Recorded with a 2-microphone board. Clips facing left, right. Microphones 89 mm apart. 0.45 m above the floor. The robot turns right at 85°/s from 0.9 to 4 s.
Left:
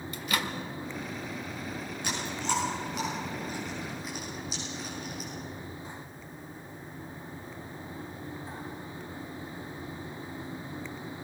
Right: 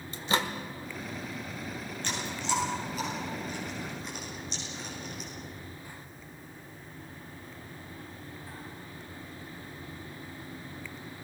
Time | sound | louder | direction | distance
0.1 | a microwave | right 3 dB | 30° right (ahead or behind) | 1.4 m
2.0 | chewing | even | 10° left (ahead or behind) | 8.5 m